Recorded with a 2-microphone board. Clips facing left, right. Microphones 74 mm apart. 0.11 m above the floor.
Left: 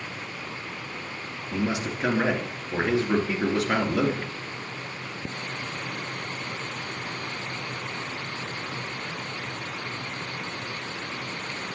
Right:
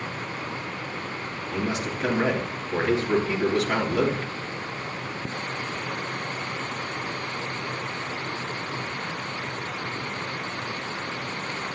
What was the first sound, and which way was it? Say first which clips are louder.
A man speaking: left 1 dB; 15° left (ahead or behind).